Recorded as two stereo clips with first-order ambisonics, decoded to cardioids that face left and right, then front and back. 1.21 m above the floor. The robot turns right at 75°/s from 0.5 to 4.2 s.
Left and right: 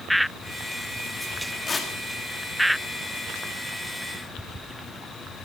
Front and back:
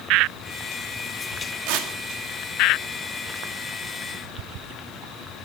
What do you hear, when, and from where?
1.7 s tearing paper: 155° left, 1.9 m; by 1.9 s 175° left, 1.9 m